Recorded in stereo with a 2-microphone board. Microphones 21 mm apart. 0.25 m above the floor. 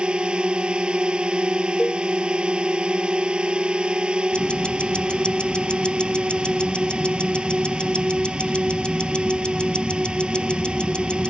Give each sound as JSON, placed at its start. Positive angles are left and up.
{"t": 0.0, "sound": "a drone", "side_deg": -45}
{"t": 1.8, "sound": "a cowbell", "side_deg": 40}
{"t": 4.3, "sound": "ticking", "side_deg": 55}